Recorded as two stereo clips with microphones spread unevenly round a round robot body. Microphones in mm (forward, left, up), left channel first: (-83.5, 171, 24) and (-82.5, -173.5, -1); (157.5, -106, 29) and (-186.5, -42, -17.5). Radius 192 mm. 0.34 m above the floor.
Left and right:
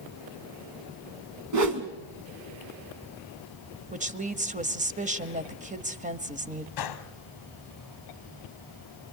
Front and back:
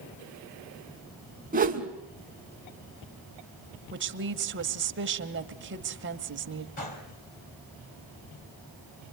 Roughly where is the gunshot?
Ahead left.